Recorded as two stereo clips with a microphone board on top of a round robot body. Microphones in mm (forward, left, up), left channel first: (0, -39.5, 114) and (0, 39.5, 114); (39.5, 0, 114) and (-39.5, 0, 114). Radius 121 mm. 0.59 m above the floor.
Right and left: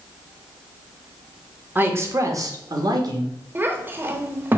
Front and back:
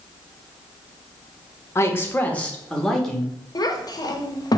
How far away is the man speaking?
About 0.9 m.